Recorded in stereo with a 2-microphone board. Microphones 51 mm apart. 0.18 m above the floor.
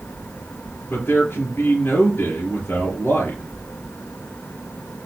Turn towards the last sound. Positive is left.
turn(degrees=45)  # may be behind; listen again after turning